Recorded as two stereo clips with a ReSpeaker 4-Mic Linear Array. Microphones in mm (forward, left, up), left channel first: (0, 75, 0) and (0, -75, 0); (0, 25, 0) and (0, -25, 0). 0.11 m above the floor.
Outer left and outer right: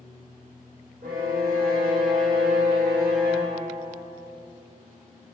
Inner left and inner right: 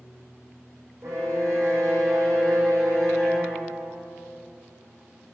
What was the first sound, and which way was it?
A violin, 70° right (ahead or behind).